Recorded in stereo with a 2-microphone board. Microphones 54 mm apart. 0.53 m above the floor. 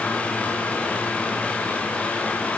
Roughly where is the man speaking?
No man speaking in this recording.